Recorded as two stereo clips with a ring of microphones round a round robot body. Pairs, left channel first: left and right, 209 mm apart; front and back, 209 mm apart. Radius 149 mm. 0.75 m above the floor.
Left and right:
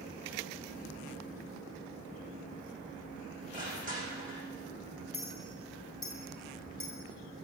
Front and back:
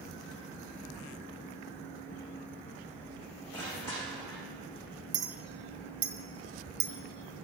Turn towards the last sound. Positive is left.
turn(degrees=180)